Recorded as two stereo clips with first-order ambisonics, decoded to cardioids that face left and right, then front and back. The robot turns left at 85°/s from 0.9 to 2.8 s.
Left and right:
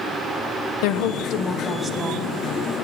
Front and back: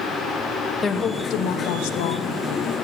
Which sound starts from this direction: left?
A woman speaking, at 0.8 s.